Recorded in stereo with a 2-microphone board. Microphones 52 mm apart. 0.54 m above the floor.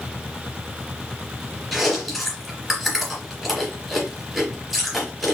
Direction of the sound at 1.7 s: Centre (ahead or behind).